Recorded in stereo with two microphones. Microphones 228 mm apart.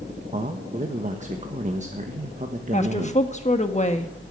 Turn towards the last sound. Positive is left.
turn(degrees=30)  # may be behind; listen again after turning